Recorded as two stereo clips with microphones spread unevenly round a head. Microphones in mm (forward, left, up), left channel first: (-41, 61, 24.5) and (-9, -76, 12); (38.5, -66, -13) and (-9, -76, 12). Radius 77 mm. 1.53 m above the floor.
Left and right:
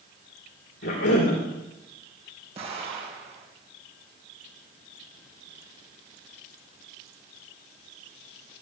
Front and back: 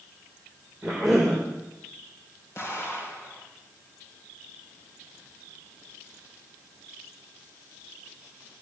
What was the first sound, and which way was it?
A cough, 100° left.